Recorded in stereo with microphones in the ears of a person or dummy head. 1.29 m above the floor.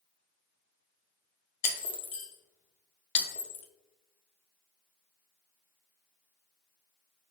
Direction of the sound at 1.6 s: 50° left (ahead or behind).